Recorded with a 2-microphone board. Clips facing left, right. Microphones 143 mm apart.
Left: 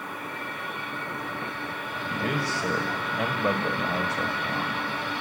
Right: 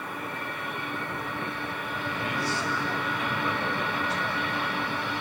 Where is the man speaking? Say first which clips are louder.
Left 3 dB; 60° left (ahead or behind), 2 m.